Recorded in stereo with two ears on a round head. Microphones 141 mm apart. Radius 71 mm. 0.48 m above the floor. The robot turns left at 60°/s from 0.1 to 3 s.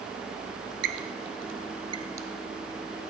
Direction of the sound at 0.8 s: 70° right (ahead or behind).